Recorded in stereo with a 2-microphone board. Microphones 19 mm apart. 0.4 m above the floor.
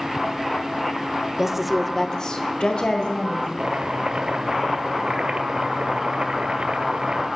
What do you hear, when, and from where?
1.4 s a woman speaking: 25° right (ahead or behind), 0.9 m; by 3.5 s 70° left (ahead or behind), 2 m
3.6 s chopping: 80° right, 1.5 m